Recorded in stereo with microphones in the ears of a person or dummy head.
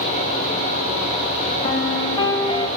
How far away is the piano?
About 1.1 m.